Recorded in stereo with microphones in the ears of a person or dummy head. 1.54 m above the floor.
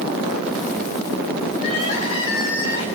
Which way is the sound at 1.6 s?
35° left (ahead or behind).